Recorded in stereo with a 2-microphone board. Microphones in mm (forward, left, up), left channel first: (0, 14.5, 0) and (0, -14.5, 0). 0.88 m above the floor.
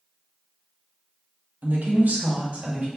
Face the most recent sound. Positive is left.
turn(degrees=-50)  # may be behind; listen again after turning